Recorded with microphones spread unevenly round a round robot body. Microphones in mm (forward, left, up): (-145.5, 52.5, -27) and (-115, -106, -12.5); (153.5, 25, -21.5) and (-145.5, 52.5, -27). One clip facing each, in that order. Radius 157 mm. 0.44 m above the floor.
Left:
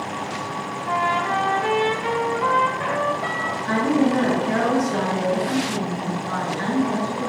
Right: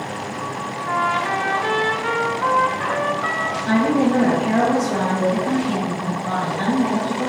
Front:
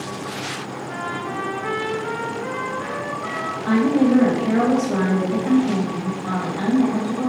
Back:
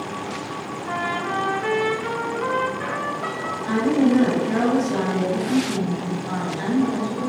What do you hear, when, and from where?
0.9 s a trumpet: 165° left, 2.5 m
3.7 s a woman speaking: 25° right, 2.5 m